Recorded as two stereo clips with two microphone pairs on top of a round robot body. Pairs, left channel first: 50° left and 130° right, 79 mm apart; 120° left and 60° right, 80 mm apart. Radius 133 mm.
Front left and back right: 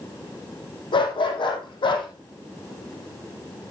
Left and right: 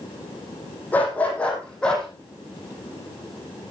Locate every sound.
0.9 s a dog barking: 50° left, 6 m; by 2.1 s 40° left, 5.5 m